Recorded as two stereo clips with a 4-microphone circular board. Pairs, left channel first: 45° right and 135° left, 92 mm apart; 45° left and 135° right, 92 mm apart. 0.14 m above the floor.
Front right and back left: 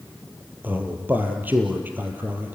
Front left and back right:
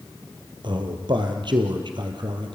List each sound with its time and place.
0.6 s a man speaking: 155° right, 3.5 m